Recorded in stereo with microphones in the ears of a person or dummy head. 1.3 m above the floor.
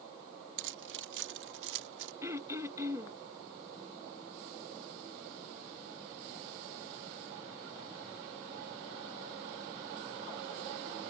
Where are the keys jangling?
65° right (ahead or behind); by 2.1 s 70° right (ahead or behind).